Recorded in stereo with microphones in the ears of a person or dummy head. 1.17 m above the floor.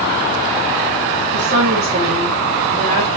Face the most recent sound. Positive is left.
turn(degrees=-25)  # may be behind; listen again after turning